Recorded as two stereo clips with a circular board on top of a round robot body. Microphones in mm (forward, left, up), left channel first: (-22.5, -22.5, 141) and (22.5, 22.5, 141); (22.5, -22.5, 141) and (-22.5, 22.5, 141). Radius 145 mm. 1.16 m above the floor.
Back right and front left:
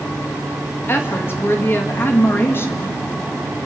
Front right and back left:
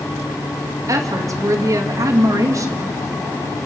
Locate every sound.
0.9 s a woman speaking: 170° left, 2.0 m